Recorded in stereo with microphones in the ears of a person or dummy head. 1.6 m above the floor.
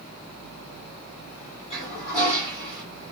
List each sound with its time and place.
1.7 s a toilet flushing: 30° left (ahead or behind), 1.6 m